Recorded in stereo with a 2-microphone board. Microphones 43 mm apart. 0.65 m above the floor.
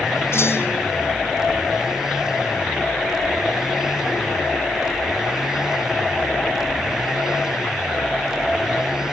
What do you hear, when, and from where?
0.3 s a clunk: 85° left, 6.5 m